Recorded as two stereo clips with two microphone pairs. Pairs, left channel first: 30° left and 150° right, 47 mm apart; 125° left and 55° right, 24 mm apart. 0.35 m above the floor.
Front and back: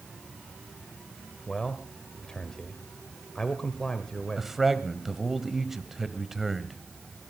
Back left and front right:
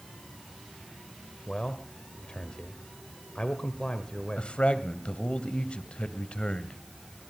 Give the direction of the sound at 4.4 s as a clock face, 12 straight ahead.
8 o'clock.